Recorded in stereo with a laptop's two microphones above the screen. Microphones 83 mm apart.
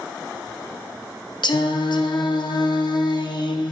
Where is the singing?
60° left (ahead or behind), 0.5 m.